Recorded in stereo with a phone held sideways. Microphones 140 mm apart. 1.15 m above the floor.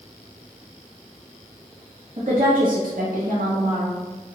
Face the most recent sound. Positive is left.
turn(degrees=-50)  # may be behind; listen again after turning